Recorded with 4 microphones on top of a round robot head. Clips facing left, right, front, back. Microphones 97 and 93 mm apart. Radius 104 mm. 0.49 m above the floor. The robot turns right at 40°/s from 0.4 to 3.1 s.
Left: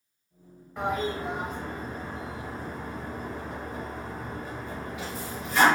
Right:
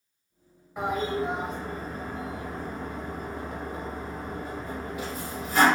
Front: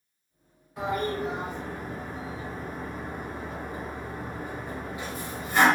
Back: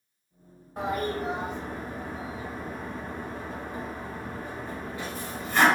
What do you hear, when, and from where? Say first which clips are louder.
0.8 s a toilet flushing: right 1 dB, even; 160° right, 1.1 m; by 5.7 s 70° right, 1.1 m